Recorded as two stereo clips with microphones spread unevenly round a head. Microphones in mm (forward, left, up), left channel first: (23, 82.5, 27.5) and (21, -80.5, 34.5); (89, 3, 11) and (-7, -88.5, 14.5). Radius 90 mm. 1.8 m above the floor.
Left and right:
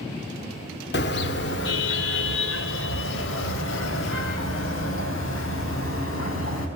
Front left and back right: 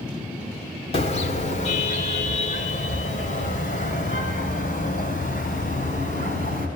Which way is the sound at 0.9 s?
90° left.